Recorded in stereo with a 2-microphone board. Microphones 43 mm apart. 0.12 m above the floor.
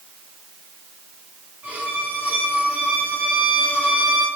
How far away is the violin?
About 3 m.